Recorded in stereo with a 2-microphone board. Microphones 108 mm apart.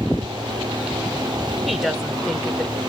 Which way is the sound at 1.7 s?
Centre (ahead or behind).